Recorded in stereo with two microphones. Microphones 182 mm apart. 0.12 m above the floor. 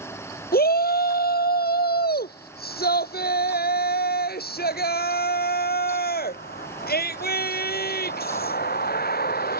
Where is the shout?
60° left (ahead or behind).